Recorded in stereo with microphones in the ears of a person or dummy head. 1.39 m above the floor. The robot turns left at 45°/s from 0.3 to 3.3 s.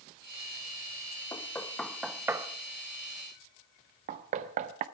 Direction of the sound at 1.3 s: 20° left (ahead or behind).